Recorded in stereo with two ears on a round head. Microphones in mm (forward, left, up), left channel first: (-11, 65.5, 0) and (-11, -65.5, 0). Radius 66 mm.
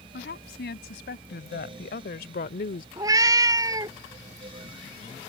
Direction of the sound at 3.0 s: 25° right (ahead or behind).